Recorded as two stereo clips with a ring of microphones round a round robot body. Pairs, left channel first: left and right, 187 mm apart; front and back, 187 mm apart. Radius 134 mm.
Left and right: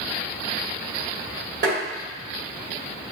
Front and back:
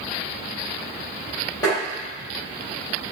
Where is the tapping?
75° right, 1.4 m.